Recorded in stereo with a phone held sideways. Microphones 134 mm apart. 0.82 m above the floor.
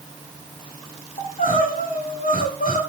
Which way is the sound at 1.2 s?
70° left (ahead or behind).